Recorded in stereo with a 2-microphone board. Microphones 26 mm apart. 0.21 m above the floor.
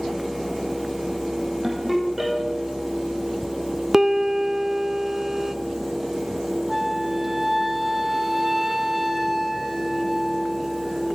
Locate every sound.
1.6 s a ringtone: 15° right (ahead or behind), 5.5 m
3.9 s a piano: 15° right (ahead or behind), 0.8 m
6.7 s a flute: 10° right (ahead or behind), 1.2 m